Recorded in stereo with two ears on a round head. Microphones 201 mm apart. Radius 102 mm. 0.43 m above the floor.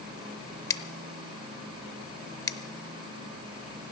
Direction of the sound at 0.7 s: 15° left (ahead or behind).